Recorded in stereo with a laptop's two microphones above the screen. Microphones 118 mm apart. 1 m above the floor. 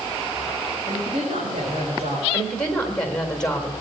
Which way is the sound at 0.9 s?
75° right (ahead or behind).